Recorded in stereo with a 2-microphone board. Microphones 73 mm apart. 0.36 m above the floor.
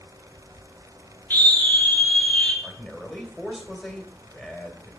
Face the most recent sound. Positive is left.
turn(degrees=0)  # may be behind; listen again after turning